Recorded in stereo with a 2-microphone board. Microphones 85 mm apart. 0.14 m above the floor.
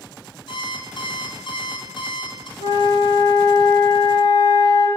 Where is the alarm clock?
75° left (ahead or behind), 1.9 m.